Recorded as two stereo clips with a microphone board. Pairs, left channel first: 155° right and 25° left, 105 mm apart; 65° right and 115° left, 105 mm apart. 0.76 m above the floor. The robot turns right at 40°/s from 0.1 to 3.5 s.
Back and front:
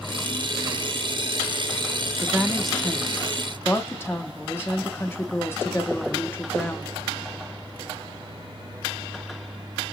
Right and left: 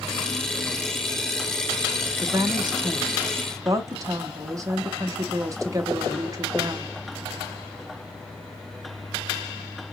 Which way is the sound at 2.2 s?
95° left.